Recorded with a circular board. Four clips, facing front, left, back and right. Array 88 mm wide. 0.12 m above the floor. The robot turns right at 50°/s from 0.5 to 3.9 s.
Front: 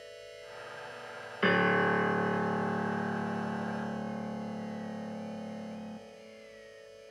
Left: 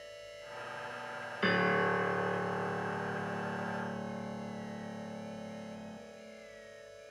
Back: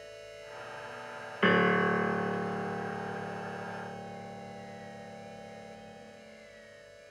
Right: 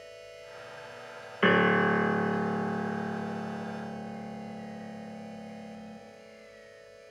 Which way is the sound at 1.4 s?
105° right.